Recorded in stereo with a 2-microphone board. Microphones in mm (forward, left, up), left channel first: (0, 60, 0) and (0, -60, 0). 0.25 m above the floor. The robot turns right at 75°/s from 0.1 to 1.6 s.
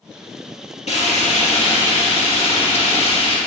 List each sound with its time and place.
0.9 s frying: 70° left, 3.5 m; by 3.4 s 125° left, 3.5 m